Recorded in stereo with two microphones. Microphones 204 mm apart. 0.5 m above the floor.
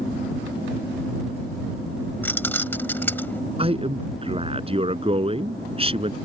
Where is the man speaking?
30° right (ahead or behind).